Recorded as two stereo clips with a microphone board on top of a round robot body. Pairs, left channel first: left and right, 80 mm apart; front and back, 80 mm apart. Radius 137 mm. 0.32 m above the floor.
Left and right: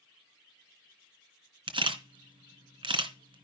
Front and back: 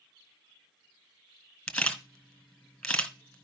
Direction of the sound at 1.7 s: 80° right.